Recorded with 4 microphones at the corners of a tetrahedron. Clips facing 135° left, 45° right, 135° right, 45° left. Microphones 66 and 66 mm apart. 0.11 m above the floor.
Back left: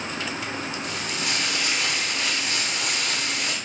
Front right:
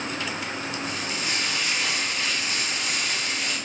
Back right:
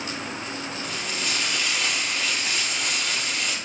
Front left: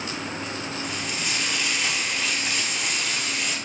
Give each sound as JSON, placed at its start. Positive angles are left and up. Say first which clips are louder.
{"t": 0.8, "sound": "frying", "louder": "even, even", "azimuth_deg": 130, "distance_m": 3.5}